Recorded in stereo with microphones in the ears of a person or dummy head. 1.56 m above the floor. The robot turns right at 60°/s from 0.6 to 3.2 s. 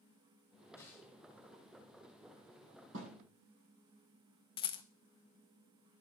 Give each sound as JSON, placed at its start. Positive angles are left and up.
{"t": 0.8, "sound": "a snare drum", "side_deg": 15, "distance_m": 3.0}
{"t": 2.9, "sound": "a thud", "side_deg": -75, "distance_m": 7.5}
{"t": 4.6, "sound": "a rattle", "side_deg": 30, "distance_m": 0.9}